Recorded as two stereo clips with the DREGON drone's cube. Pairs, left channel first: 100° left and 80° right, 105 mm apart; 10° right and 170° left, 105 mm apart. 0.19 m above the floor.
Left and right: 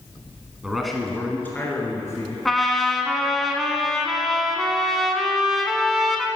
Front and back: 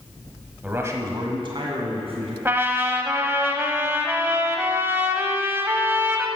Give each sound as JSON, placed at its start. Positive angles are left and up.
{"t": 0.6, "sound": "a man speaking", "azimuth_deg": -145, "distance_m": 1.2}
{"t": 2.5, "sound": "a trumpet", "azimuth_deg": -175, "distance_m": 0.8}